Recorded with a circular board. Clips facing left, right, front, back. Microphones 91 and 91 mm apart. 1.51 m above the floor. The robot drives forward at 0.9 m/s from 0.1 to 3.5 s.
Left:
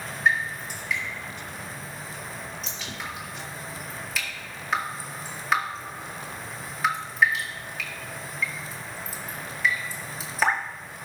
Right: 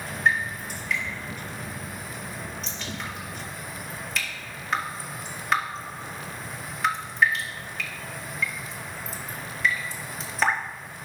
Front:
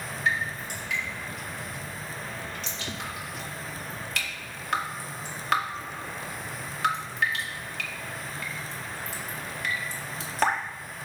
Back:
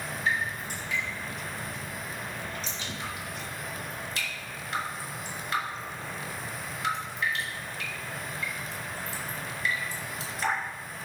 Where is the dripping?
Straight ahead, 5 m.